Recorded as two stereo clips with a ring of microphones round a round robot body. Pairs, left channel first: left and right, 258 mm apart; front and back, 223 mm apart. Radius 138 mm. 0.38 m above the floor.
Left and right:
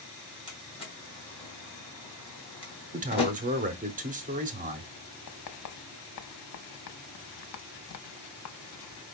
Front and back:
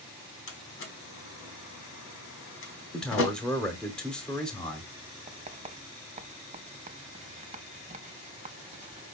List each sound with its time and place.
0.5 s a door slam: 20° left, 1.7 m
2.9 s a man speaking: 85° right, 0.8 m
5.3 s writing: 115° left, 0.6 m